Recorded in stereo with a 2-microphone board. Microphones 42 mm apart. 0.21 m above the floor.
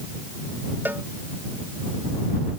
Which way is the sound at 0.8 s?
50° right (ahead or behind).